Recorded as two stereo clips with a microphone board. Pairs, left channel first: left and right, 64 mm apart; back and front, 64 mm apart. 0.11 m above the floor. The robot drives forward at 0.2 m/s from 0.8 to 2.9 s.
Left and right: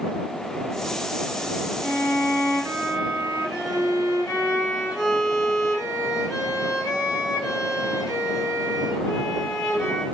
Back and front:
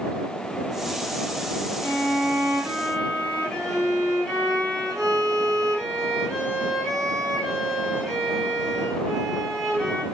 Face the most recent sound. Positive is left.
turn(degrees=100)